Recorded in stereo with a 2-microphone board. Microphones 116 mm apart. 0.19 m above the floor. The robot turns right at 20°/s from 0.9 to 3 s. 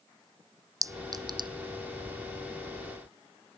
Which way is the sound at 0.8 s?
30° right (ahead or behind).